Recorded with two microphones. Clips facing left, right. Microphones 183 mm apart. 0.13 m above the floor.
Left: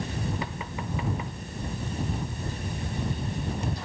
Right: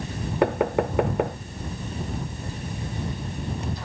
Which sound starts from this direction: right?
Knocking, at 0.4 s.